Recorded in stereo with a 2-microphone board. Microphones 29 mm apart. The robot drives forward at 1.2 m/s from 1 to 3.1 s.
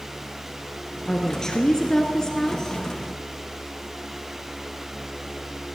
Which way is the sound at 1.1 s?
15° left (ahead or behind).